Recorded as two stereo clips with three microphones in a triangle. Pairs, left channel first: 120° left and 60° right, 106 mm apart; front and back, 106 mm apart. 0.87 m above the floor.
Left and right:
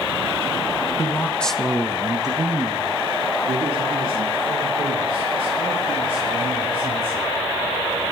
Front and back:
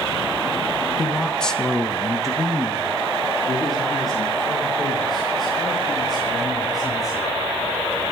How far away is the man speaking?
About 1.2 m.